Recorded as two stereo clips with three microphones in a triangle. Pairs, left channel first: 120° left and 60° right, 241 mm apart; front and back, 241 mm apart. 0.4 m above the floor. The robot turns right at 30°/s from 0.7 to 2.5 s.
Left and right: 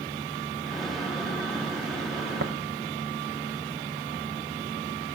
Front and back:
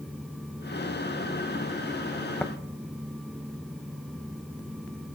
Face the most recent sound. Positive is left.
turn(degrees=-80)